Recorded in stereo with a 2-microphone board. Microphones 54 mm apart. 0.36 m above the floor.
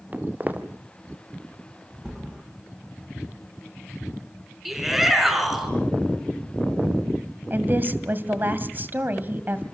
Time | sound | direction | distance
0.1 | footsteps | 30° right (ahead or behind) | 2.5 m
2.0 | a thud | 20° right (ahead or behind) | 8 m
4.7 | a shout | 5° right (ahead or behind) | 4.5 m
7.5 | a woman speaking | 35° right (ahead or behind) | 2 m